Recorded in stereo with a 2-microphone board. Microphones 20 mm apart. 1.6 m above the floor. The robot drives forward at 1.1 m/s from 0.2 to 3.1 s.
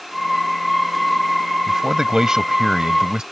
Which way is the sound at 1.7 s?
35° right (ahead or behind).